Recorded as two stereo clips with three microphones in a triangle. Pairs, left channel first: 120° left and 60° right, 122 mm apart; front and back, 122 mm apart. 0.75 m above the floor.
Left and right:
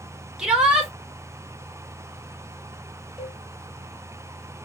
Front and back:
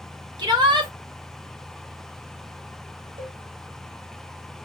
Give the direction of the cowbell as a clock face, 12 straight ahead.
5 o'clock.